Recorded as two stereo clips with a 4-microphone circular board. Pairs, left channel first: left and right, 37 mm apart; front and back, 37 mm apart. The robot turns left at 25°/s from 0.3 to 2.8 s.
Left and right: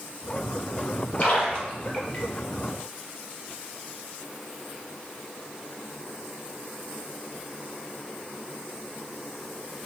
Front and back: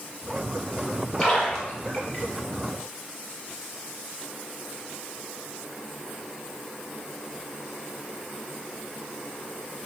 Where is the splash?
75° left, 1.4 m; by 2.2 s 50° left, 1.4 m.